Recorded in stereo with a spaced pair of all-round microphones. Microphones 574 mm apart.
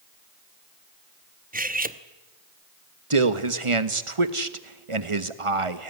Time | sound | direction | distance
1.5 | cutlery clinking | 15° right (ahead or behind) | 0.9 m
3.1 | a man speaking | 60° right (ahead or behind) | 1.4 m